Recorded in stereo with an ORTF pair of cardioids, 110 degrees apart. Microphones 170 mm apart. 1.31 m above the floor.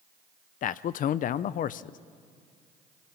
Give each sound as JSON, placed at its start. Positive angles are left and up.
{"t": 0.6, "sound": "a man speaking", "azimuth_deg": 55, "distance_m": 0.6}